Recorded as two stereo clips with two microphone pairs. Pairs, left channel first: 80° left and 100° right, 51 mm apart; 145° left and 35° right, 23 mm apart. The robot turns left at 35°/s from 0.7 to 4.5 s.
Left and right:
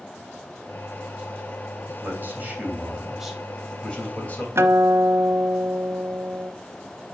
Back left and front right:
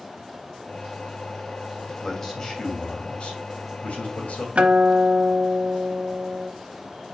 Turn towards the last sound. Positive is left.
turn(degrees=-65)